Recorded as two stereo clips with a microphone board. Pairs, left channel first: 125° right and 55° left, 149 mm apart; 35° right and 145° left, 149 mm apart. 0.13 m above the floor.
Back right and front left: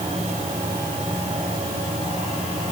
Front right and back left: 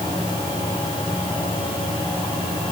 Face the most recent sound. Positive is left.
No sound to turn to.